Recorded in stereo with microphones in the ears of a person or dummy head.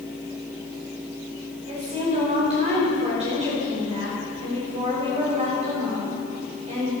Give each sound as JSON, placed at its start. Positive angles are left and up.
{"t": 1.7, "sound": "a woman speaking", "side_deg": -40, "distance_m": 5.0}